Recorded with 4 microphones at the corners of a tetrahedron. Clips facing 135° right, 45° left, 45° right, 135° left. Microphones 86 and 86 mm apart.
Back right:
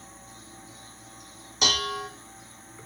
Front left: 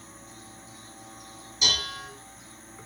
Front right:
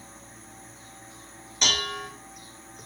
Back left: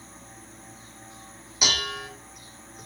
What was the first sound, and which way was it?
Dishes clattering, 145° right.